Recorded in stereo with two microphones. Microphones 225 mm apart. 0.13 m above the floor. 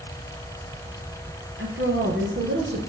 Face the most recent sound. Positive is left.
turn(degrees=-60)  # may be behind; listen again after turning